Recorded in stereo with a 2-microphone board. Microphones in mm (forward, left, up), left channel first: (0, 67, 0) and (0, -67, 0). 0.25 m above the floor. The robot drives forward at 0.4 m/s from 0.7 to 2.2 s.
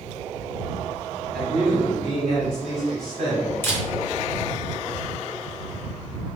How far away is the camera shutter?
About 1.2 m.